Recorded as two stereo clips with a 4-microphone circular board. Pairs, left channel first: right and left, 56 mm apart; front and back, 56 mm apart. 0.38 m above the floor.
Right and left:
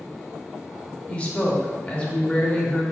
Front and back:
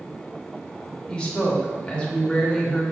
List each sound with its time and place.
1.1 s a woman speaking: 50° right, 1.0 m